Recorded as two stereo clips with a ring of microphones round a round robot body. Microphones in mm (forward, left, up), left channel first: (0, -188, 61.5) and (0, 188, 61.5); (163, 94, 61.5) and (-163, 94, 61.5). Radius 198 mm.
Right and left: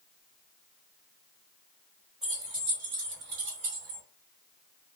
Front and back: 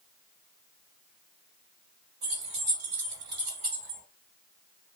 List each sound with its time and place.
2.2 s keys jangling: straight behind, 1.6 m; by 4.0 s 120° left, 1.6 m